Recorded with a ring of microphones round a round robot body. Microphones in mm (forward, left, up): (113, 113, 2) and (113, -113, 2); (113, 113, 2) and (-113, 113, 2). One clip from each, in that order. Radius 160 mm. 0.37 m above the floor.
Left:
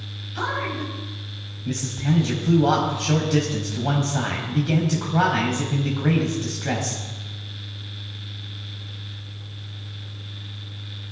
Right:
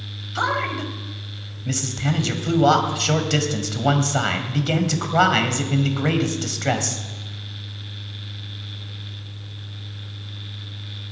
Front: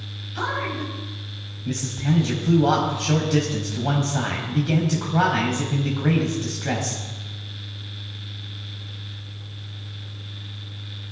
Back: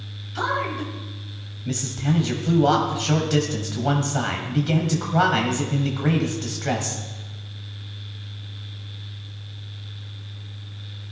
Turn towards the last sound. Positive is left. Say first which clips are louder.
# right 4 dB, back 2 dB
turn(degrees=-110)